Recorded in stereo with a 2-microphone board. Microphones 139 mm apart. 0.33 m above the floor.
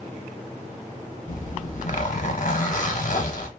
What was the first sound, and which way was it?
A zipper, 65° left (ahead or behind).